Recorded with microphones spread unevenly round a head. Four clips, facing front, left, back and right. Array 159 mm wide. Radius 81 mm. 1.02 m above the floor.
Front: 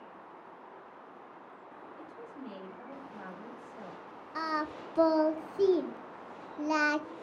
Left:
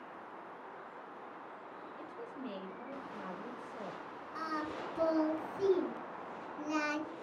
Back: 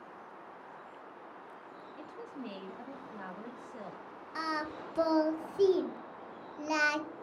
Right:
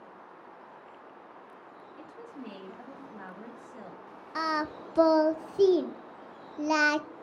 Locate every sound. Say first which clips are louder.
2.0 s a woman speaking: right 1 dB, back 3 dB; 165° right, 1.5 m
4.3 s singing: right 8 dB, front 2 dB; 95° right, 0.5 m